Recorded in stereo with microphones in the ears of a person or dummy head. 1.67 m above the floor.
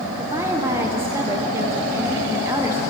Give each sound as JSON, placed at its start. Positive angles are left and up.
{"t": 0.2, "sound": "a woman speaking", "side_deg": -10, "distance_m": 1.1}